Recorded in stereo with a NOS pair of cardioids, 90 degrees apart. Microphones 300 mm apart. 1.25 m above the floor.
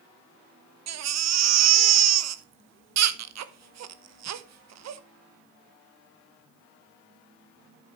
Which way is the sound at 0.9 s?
60° right.